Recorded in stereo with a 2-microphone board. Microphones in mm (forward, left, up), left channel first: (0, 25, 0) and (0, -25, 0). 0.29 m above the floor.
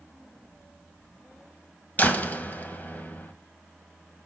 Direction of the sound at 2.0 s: 35° left (ahead or behind).